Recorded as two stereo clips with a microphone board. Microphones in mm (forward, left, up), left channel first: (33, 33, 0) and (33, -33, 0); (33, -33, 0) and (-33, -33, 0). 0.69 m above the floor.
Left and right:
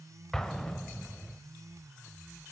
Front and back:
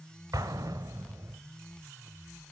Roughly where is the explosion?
Behind.